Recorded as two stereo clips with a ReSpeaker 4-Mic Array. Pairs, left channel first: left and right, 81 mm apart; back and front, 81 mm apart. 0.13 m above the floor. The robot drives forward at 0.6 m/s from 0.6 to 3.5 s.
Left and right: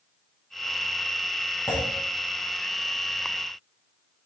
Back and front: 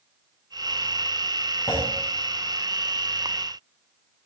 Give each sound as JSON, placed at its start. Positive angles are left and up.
{"t": 1.7, "sound": "a clunk", "azimuth_deg": 145, "distance_m": 7.5}